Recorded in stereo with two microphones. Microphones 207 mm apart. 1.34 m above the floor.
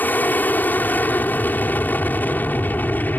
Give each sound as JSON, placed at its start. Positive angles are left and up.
{"t": 0.0, "sound": "an aircraft", "side_deg": 10}